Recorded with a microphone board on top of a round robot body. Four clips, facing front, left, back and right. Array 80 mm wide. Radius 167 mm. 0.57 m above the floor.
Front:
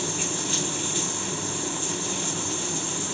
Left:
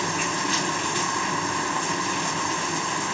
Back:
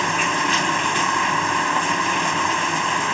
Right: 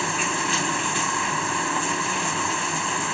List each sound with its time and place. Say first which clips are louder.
0.0 s running water: right 1 dB, back 11 dB; 175° right